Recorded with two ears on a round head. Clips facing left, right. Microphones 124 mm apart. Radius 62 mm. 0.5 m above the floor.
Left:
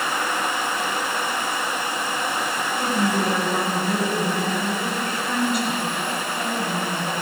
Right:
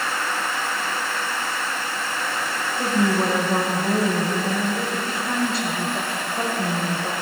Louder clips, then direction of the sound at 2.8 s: Right 2 dB; 30° right (ahead or behind).